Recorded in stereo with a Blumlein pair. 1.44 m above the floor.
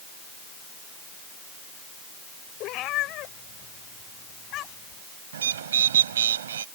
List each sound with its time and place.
2.6 s a cat meowing: 35° left
5.3 s a bird: 65° right